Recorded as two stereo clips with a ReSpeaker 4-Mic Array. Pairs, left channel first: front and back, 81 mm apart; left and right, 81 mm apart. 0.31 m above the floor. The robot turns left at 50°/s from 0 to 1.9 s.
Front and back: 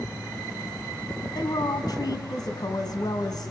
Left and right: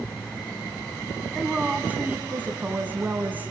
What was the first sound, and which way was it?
A woman speaking, 10° left.